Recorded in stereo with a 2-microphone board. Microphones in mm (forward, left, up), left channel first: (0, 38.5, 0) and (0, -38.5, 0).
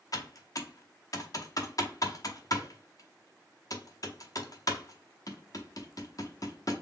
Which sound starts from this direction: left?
Typing on a keyboard, at 0.1 s.